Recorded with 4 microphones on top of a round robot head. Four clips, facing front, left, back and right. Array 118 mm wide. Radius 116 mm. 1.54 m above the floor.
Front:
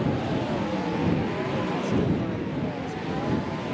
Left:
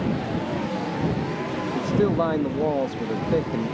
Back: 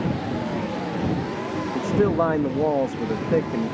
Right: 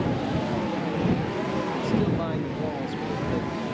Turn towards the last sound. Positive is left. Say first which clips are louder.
# left 6 dB, back 8 dB
turn(degrees=150)